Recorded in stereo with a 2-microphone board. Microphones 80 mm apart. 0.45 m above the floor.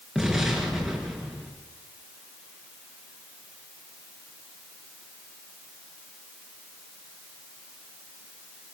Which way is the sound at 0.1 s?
Centre (ahead or behind).